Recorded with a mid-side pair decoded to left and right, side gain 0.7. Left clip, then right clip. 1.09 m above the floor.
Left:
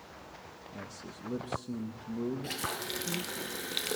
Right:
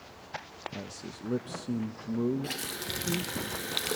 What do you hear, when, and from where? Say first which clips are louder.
0.7 s a man speaking: right 3 dB; 25° right, 0.8 m
2.4 s a running tap: even; 10° right, 0.9 m